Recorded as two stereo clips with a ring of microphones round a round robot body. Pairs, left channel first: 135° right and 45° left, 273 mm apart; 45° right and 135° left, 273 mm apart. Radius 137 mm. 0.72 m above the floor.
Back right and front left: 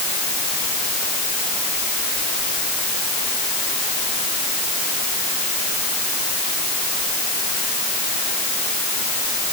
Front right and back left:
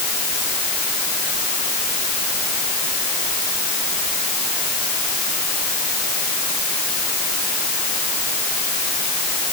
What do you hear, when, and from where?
Only background noise.